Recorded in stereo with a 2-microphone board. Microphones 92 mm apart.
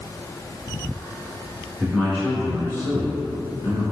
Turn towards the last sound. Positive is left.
turn(degrees=40)  # may be behind; listen again after turning